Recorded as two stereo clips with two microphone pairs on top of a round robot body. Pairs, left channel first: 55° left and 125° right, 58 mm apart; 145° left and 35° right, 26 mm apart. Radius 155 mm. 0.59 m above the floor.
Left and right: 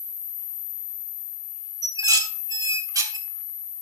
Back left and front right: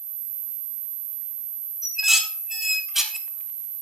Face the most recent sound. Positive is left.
turn(degrees=-115)